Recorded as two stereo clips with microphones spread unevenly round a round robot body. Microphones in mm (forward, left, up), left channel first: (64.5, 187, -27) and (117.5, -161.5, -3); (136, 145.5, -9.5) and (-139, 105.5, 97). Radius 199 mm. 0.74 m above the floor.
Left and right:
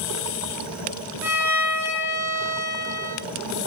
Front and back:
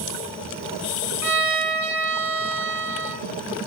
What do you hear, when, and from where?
1.2 s a violin: 165° right, 3.5 m